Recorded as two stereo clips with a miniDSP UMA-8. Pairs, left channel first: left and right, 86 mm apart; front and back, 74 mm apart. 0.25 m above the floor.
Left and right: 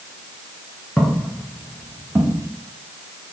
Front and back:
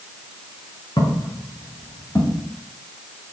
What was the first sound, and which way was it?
Footsteps, 5° left.